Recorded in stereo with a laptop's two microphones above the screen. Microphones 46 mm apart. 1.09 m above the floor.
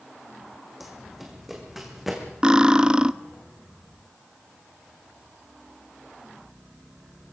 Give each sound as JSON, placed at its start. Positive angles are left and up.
{"t": 0.8, "sound": "running footsteps", "side_deg": 0, "distance_m": 3.0}
{"t": 2.4, "sound": "cutlery clinking", "side_deg": -20, "distance_m": 0.8}